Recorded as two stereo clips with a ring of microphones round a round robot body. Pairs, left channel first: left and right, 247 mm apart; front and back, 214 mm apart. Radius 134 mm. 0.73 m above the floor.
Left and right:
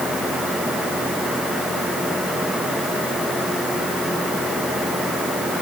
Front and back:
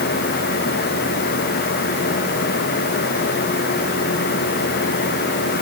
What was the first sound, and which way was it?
Only background noise.